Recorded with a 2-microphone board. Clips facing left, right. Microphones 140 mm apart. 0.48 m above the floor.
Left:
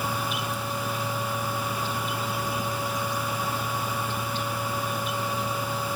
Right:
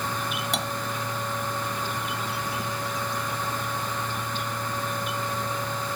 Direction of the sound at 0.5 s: 85° right.